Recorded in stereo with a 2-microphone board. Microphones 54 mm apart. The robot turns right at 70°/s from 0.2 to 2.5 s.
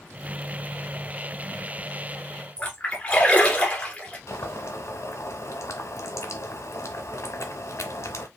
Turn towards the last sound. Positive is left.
turn(degrees=75)  # may be behind; listen again after turning